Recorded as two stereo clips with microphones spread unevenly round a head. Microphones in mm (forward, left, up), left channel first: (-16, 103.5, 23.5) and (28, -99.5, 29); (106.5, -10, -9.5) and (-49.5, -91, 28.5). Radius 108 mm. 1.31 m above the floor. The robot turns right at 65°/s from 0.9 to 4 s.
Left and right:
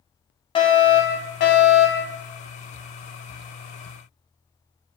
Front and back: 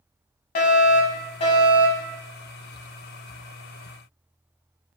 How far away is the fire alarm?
About 1.6 m.